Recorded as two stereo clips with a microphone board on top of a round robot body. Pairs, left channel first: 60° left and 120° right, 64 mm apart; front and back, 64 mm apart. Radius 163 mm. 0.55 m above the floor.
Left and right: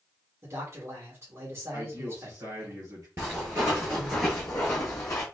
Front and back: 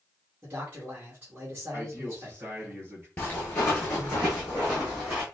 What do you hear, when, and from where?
0.4 s a man speaking: 135° right, 1.7 m
1.7 s a man speaking: 140° right, 2 m
3.2 s footsteps: 65° right, 0.8 m; by 5.2 s 105° left, 0.7 m